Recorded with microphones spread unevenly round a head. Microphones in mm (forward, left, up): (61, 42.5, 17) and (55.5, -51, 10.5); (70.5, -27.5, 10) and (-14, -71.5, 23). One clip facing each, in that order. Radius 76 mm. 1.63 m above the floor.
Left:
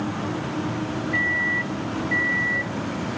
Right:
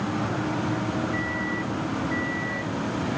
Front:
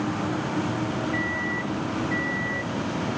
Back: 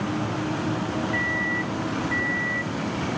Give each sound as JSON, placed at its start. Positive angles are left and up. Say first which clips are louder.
{"t": 1.1, "sound": "a microwave", "louder": "left 2 dB, back 1 dB", "azimuth_deg": 110}